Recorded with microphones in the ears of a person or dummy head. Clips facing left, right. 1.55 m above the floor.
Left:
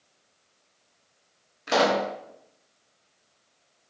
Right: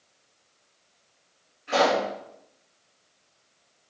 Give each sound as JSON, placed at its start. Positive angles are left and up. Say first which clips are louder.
{"t": 1.7, "sound": "a pop", "louder": "even", "side_deg": 80, "distance_m": 0.9}